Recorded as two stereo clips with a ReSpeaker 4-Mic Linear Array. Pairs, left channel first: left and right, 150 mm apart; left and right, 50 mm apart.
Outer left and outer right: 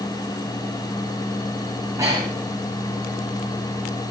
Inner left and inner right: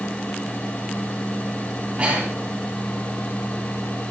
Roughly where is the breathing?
Right.